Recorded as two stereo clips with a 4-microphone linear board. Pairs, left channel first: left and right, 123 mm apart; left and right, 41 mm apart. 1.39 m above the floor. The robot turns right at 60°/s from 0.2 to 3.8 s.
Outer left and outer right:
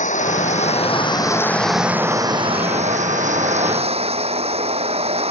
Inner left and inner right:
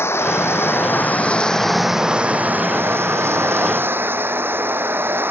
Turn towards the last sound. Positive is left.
turn(degrees=-55)